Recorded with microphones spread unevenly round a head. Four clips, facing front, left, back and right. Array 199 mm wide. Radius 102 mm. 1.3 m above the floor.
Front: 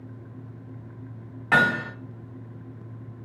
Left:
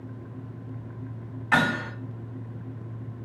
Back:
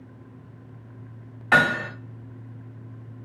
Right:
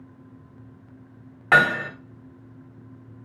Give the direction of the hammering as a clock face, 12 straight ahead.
2 o'clock.